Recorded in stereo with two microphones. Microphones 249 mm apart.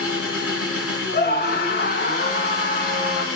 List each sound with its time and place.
0.0 s an engine running: 65° left (ahead or behind), 2 m
1.1 s a scream: 40° left (ahead or behind), 1.1 m